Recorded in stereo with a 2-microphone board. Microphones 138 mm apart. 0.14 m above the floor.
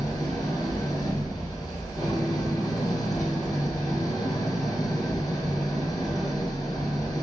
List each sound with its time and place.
0.0 s an engine running: 25° left (ahead or behind), 0.9 m